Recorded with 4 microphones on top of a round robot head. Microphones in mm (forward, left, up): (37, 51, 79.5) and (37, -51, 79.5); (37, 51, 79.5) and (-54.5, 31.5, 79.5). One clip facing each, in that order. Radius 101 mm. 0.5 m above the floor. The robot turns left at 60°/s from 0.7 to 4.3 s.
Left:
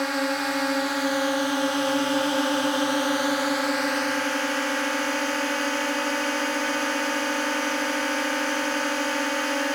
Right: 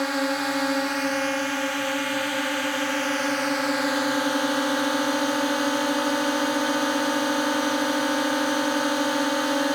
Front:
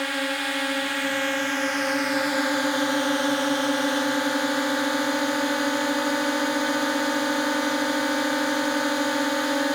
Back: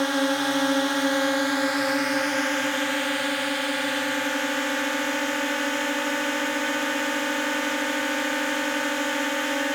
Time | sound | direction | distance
0.0 | a drone | straight behind | ?